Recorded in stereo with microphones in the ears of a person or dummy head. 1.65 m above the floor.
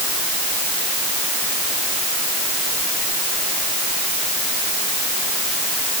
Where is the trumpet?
No trumpet in this recording.